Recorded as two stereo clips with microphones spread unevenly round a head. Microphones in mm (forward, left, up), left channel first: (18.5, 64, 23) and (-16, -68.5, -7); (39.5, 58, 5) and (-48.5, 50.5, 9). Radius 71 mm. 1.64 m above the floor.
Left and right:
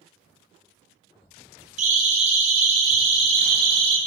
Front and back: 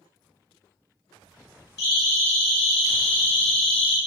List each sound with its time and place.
1.8 s a siren: 65° right, 7.5 m; by 4.0 s 50° right, 5.5 m